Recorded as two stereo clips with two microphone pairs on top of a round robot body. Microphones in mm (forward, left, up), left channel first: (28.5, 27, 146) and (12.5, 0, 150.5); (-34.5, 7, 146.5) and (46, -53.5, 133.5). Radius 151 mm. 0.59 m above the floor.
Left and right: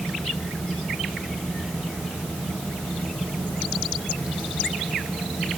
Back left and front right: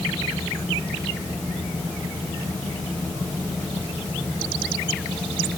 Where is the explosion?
No explosion in this recording.